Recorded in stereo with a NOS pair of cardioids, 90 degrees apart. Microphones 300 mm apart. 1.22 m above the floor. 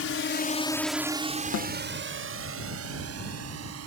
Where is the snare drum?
60° left.